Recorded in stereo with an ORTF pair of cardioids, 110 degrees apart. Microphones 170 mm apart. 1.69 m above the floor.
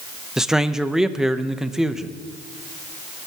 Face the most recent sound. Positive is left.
turn(degrees=-5)